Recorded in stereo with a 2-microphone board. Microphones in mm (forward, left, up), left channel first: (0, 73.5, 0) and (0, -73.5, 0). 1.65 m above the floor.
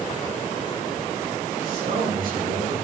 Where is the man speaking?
70° right (ahead or behind), 4 m; by 2.8 s 75° right (ahead or behind), 2.5 m.